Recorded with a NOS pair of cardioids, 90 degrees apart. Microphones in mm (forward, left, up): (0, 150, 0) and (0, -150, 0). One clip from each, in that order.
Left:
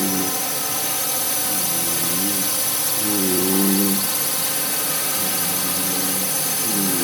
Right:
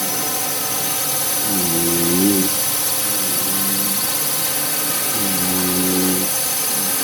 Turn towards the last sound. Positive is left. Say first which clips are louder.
# right 1 dB
turn(degrees=-10)